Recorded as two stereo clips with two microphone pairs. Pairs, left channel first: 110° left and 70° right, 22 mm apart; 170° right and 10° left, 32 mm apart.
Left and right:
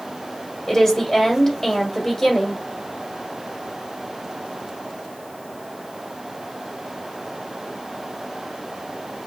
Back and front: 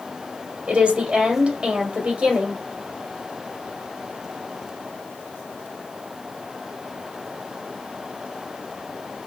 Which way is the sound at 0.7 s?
50° left.